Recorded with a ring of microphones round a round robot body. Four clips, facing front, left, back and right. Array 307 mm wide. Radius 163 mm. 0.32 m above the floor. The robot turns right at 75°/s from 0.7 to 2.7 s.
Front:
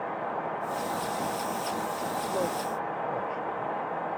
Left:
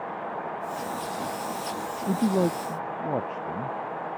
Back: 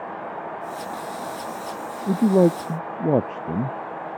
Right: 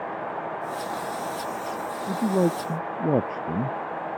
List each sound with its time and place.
2.1 s a man speaking: 160° left; by 3.8 s 155° right